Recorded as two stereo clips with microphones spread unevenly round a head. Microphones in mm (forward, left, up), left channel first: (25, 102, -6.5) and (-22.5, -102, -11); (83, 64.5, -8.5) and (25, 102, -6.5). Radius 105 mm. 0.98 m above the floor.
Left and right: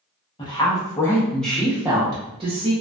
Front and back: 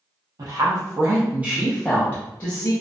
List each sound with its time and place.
0.4 s a woman speaking: 145° left, 0.9 m; by 2.7 s 45° right, 0.7 m